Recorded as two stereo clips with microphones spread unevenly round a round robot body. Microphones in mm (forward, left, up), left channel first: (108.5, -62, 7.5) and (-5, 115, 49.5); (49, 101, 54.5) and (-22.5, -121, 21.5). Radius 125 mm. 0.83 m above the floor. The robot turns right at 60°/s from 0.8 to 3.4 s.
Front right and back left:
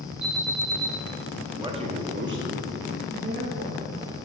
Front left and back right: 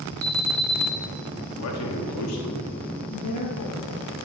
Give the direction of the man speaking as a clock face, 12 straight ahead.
10 o'clock.